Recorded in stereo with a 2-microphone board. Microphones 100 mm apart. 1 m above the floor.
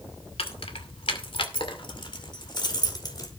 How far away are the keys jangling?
About 2 m.